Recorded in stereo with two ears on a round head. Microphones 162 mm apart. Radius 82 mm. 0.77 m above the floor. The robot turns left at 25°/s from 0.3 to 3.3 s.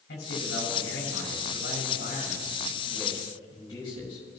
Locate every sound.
0.1 s a man speaking: 100° left, 6 m; by 4.4 s 25° left, 6 m